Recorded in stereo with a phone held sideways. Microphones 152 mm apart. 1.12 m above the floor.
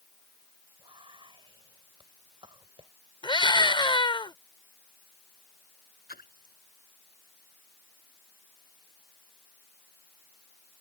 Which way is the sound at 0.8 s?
35° right (ahead or behind).